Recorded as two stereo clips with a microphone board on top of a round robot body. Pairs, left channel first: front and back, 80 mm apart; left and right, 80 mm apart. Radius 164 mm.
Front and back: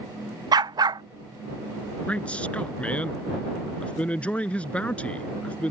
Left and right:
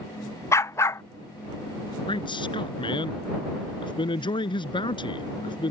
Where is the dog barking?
145° left.